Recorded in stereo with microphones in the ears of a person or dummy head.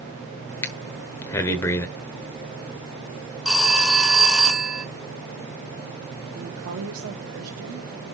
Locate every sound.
0.6 s breathing: 10° left (ahead or behind), 1.1 m
3.5 s a phone ringing: 5° right (ahead or behind), 0.8 m
6.3 s a woman speaking: 85° right, 2.5 m